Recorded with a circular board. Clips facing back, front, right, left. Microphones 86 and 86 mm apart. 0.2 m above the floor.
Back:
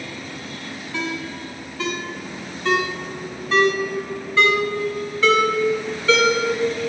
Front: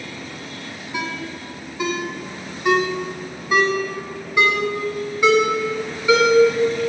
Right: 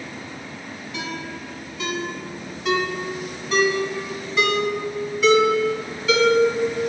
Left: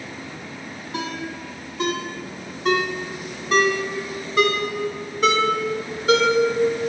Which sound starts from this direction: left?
A ringtone, at 0.9 s.